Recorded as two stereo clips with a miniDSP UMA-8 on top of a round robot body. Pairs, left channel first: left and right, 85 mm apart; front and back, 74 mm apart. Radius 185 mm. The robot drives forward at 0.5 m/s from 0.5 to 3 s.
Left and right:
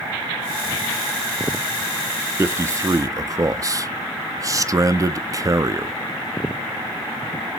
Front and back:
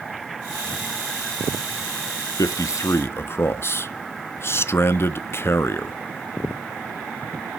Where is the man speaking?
35° right, 1.0 m; by 6.0 s 50° right, 0.8 m.